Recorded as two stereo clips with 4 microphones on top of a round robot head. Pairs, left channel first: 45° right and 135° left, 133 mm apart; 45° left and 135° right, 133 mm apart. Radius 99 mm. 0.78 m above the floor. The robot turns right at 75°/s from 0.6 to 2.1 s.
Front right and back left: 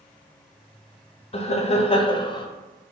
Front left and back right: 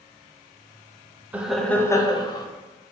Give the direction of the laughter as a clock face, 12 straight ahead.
2 o'clock.